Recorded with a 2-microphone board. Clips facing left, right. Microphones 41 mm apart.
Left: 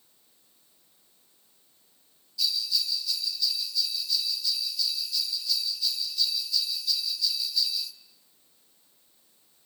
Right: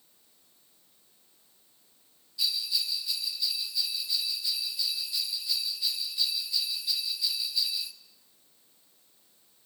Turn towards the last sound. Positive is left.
turn(degrees=-20)  # may be behind; listen again after turning